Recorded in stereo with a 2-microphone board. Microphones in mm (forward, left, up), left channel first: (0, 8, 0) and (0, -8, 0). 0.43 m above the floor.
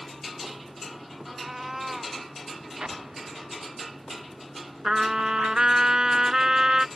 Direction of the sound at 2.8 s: 90° right.